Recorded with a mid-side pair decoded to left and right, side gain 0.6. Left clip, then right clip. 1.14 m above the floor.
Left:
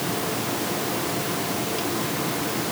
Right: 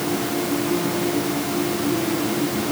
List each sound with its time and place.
Only background noise.